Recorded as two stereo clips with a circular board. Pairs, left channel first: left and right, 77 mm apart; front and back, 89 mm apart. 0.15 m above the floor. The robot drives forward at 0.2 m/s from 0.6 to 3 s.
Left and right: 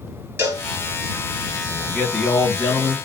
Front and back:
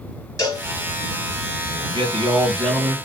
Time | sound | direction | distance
0.4 | a cowbell | 40° right | 2.5 m
1.7 | a man speaking | 160° left | 3 m